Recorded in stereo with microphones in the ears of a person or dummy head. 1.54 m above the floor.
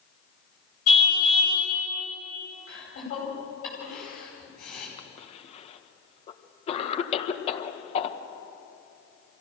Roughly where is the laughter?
Left.